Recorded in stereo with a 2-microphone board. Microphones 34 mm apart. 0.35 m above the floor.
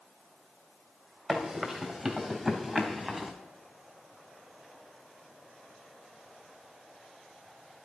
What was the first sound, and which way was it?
Running footsteps, 15° right (ahead or behind).